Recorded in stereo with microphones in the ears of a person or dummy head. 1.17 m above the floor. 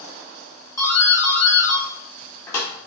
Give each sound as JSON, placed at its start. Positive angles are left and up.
{"t": 0.8, "sound": "a doorbell", "side_deg": 20, "distance_m": 4.0}